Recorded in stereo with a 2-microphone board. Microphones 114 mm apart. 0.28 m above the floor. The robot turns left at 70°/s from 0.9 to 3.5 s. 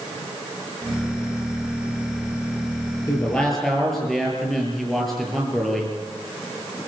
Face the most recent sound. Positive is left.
turn(degrees=0)